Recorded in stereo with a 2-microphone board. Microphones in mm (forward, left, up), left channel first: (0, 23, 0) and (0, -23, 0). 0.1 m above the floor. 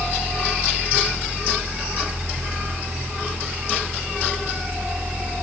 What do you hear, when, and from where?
Only background noise.